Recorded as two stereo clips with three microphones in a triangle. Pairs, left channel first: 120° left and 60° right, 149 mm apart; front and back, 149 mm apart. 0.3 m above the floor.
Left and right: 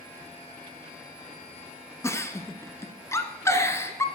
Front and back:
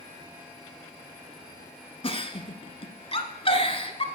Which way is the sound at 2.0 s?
50° left.